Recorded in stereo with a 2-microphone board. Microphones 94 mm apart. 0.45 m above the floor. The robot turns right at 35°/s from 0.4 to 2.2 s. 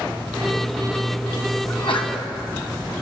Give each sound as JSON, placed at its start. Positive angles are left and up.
{"t": 1.7, "sound": "a sneeze", "side_deg": 70, "distance_m": 3.0}